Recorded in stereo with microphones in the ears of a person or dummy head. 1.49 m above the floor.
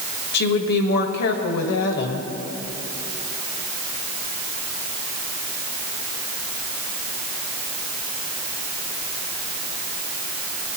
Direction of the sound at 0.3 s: 65° left (ahead or behind).